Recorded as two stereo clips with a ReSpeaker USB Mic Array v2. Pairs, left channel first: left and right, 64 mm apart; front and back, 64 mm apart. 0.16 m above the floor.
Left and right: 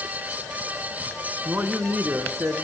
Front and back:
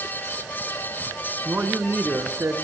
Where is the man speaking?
135° right, 1.9 m; by 2.5 s 140° right, 2.5 m.